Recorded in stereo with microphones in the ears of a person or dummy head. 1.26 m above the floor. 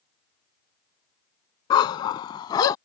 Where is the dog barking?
40° left (ahead or behind); by 2.8 s 35° left (ahead or behind).